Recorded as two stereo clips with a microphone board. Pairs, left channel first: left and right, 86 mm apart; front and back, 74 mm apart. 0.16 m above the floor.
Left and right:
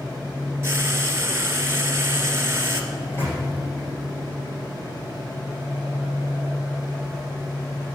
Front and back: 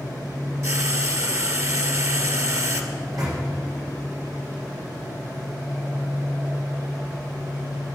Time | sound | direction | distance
0.6 | frying | 145° right | 1.8 m
2.9 | a microwave | 155° left | 7 m